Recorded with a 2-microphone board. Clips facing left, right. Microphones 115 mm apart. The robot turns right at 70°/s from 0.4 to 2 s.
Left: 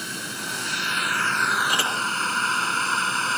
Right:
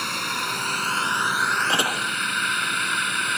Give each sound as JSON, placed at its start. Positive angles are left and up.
{"t": 0.0, "sound": "a drone", "side_deg": -65}
{"t": 1.7, "sound": "a door slam", "side_deg": -25}